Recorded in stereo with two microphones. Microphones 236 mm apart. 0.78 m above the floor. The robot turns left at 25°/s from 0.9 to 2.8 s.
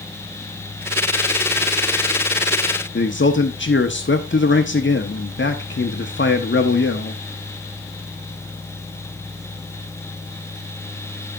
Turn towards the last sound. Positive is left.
turn(degrees=55)  # may be behind; listen again after turning